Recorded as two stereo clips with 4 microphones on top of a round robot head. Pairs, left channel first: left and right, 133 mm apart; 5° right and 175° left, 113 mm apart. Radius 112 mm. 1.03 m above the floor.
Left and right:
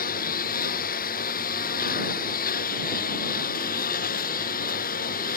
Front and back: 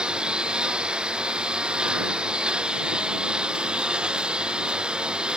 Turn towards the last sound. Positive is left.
turn(degrees=95)